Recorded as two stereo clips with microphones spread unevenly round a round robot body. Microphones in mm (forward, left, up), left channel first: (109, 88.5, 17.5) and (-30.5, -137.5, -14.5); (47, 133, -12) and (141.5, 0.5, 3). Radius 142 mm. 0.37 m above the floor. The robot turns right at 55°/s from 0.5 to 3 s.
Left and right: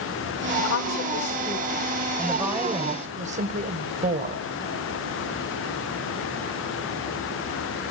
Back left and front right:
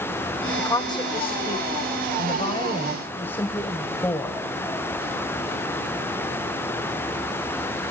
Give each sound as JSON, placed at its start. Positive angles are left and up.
{"t": 0.6, "sound": "a woman speaking", "azimuth_deg": 65, "distance_m": 1.1}